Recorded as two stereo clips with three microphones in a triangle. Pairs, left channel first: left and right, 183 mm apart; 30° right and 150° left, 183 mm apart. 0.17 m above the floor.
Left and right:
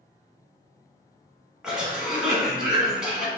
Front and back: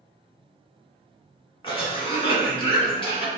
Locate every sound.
1.6 s a cough: 5° right, 1.4 m